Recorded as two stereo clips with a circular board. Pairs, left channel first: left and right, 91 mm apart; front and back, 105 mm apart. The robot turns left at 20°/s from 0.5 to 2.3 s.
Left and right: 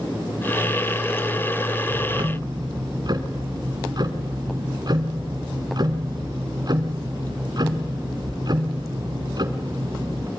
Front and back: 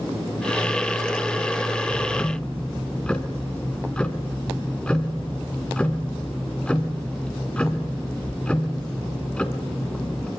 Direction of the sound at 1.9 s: 70° right.